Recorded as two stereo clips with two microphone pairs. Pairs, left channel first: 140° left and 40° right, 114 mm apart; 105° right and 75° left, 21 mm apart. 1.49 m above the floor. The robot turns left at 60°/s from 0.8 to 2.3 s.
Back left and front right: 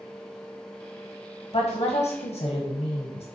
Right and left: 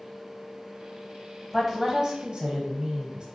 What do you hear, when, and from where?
1.5 s a woman speaking: 155° left, 1.2 m; by 3.2 s 110° left, 1.2 m